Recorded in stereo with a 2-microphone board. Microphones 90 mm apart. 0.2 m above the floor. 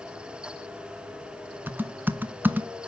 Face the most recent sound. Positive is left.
turn(degrees=-20)  # may be behind; listen again after turning